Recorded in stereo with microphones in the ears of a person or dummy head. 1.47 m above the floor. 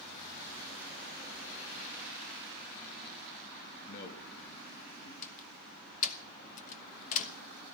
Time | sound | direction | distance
3.9 | a man speaking | 50° left (ahead or behind) | 1.8 m
5.2 | a door slam | 45° left (ahead or behind) | 1.3 m